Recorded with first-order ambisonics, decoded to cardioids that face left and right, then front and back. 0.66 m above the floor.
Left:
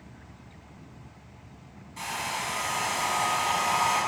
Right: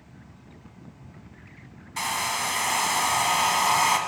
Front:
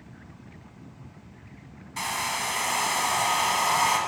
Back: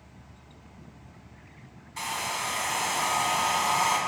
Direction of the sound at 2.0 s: 70° right.